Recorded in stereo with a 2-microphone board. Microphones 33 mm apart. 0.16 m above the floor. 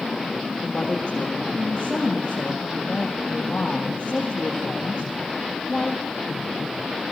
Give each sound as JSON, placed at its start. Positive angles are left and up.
{"t": 0.6, "sound": "a woman speaking", "side_deg": 40, "distance_m": 4.5}